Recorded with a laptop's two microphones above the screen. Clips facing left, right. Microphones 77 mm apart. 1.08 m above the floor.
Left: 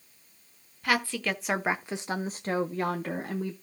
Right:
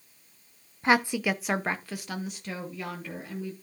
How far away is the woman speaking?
About 0.7 m.